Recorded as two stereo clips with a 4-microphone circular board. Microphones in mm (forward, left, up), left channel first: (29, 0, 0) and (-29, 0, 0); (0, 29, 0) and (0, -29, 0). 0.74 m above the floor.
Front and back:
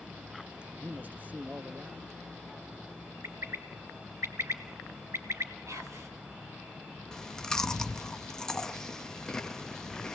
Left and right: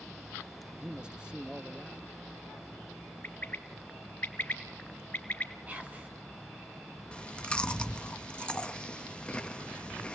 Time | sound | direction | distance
0.7 | a man speaking | 150° right | 0.7 m
3.2 | a bird | 145° left | 2 m
5.7 | whispering | 150° right | 5 m
7.1 | chewing | 60° left | 1.0 m